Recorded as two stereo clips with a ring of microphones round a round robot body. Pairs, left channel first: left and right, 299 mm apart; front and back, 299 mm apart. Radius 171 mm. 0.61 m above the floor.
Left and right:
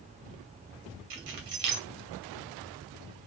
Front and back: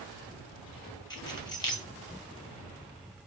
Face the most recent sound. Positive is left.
turn(degrees=-75)